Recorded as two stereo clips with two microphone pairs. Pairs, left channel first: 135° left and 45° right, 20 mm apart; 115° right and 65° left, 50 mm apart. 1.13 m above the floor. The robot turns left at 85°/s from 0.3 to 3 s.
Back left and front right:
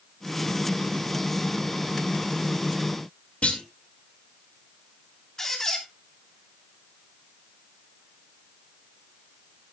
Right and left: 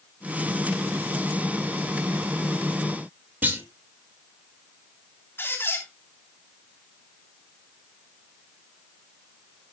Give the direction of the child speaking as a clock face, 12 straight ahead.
I don't hear a child speaking.